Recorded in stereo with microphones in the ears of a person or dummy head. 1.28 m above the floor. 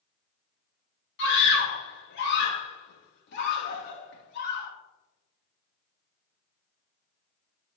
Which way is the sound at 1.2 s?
60° left (ahead or behind).